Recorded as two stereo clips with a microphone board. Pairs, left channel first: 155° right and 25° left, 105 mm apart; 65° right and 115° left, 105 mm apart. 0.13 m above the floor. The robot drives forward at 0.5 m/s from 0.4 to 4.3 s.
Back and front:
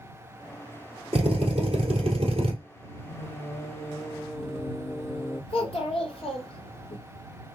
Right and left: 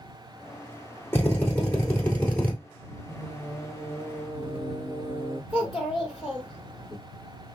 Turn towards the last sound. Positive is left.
turn(degrees=-165)